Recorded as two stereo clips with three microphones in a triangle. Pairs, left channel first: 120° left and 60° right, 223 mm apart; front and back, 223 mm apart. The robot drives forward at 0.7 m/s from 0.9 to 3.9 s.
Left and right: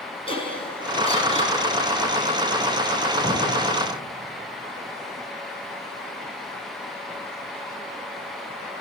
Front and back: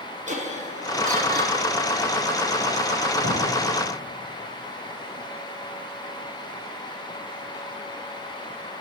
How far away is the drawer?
About 3 m.